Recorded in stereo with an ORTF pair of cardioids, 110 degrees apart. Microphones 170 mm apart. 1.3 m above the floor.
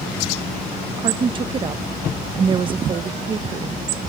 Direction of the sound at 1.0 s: 30° right.